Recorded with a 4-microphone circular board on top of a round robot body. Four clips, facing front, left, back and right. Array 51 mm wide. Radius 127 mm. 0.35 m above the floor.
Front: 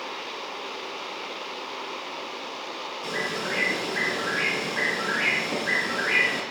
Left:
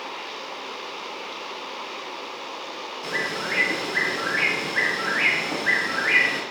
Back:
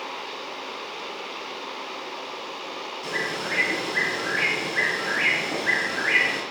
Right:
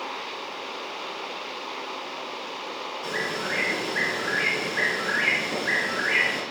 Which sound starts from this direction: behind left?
A bird, at 3.0 s.